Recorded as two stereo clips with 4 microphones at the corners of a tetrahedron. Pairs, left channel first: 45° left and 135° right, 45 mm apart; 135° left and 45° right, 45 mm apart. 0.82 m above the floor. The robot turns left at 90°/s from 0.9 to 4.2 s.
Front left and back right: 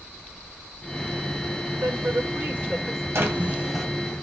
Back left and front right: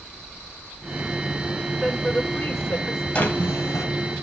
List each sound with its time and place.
1.8 s a woman speaking: 125° right, 2.5 m; by 3.0 s 125° left, 2.5 m
3.1 s a drawer: 165° right, 2 m; by 3.9 s 130° left, 2 m